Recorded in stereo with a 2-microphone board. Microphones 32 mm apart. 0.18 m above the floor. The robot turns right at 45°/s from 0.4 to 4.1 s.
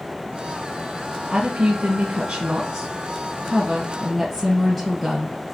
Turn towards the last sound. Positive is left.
turn(degrees=15)